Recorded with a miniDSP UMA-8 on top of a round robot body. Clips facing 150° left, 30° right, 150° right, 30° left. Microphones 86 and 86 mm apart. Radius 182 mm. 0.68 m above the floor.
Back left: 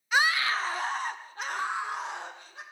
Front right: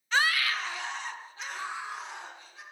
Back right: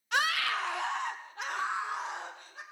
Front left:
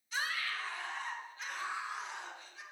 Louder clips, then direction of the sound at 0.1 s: Back left 2 dB, back right 8 dB; 130° right.